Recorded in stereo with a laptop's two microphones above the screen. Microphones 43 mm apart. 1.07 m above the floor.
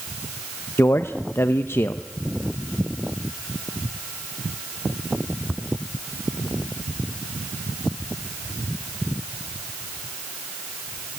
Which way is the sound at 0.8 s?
70° left (ahead or behind).